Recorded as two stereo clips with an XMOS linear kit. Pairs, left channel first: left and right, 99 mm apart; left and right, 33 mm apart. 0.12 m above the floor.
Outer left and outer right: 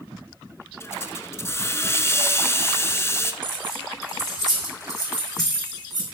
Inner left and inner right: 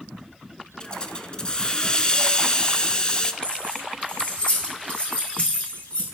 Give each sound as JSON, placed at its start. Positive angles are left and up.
{"t": 0.8, "sound": "a hiss", "side_deg": 25, "distance_m": 0.8}
{"t": 3.4, "sound": "keys jangling", "side_deg": 45, "distance_m": 5.5}